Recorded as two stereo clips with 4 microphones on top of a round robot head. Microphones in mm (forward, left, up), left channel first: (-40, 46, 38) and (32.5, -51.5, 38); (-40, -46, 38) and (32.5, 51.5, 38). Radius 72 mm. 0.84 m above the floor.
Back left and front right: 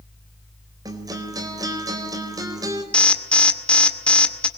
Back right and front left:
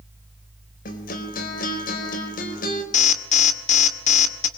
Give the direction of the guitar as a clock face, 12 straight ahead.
4 o'clock.